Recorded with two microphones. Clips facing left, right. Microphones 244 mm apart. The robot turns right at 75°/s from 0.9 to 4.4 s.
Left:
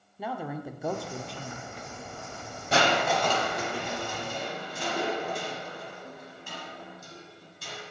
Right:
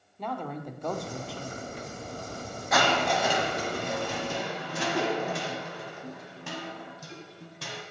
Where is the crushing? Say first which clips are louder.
Left 1 dB; 145° left, 1.8 m; by 7.8 s 85° right, 1.8 m.